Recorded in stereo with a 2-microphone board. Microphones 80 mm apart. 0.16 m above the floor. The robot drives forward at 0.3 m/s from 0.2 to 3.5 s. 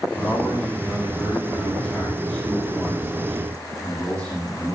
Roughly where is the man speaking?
Centre.